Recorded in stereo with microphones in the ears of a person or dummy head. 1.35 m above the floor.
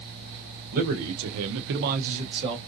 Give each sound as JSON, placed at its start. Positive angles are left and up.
{"t": 0.7, "sound": "a man speaking", "side_deg": -50, "distance_m": 0.6}